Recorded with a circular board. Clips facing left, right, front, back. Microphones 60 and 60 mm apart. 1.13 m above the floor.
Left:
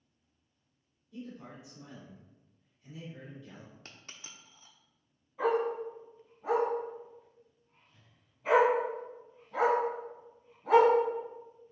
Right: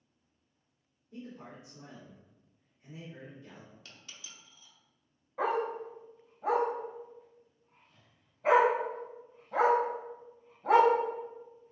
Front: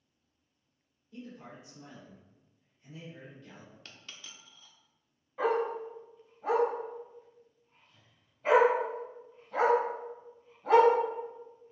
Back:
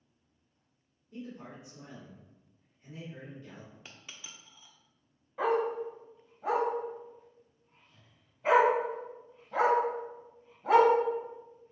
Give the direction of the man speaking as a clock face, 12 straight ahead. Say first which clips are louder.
Left 1 dB, back 2 dB; 4 o'clock.